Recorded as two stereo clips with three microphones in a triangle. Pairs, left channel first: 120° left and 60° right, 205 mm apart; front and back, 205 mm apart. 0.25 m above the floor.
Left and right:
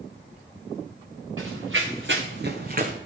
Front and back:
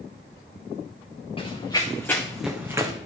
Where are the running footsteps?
65° right, 1.9 m; by 2.9 s 110° right, 1.3 m.